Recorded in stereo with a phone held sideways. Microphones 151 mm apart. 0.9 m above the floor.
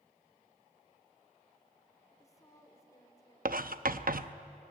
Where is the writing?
70° right (ahead or behind), 0.7 m.